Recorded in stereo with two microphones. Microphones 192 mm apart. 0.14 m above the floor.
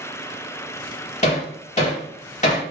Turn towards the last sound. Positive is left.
turn(degrees=40)  # may be behind; listen again after turning